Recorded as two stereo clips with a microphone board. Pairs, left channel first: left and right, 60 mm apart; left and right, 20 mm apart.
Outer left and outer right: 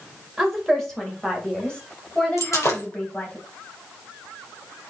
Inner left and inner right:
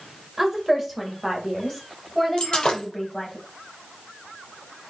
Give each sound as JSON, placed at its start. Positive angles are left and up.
{"t": 0.4, "sound": "a woman speaking", "side_deg": 0, "distance_m": 2.0}
{"t": 2.4, "sound": "breaking glass", "side_deg": 50, "distance_m": 4.5}